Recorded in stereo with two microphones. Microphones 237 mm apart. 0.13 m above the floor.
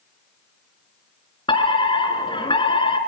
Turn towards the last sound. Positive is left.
turn(degrees=20)  # may be behind; listen again after turning